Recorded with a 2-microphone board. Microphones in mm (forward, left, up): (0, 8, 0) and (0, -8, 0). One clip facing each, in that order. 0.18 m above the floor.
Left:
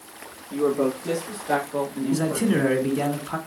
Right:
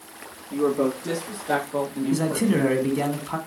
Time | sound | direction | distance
0.5 | a woman speaking | 10° right (ahead or behind) | 5.5 m
2.1 | a man speaking | 15° right (ahead or behind) | 1.6 m